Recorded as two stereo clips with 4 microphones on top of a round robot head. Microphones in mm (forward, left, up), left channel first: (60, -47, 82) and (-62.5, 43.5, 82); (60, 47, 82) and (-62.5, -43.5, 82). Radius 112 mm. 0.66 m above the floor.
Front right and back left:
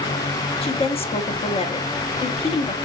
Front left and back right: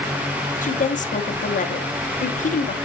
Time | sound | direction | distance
0.6 | a woman speaking | 10° left | 1.0 m